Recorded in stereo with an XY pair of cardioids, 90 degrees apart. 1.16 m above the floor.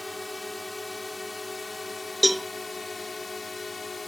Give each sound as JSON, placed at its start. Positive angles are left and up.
{"t": 0.0, "sound": "a drone", "azimuth_deg": 20}
{"t": 2.2, "sound": "a cowbell", "azimuth_deg": -5}